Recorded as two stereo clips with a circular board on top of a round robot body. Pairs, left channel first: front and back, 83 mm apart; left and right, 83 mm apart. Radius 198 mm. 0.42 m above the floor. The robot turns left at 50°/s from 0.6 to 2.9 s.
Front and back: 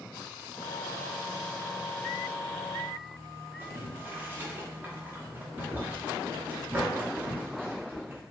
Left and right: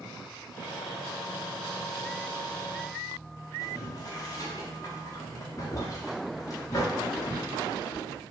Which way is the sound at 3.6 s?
120° left.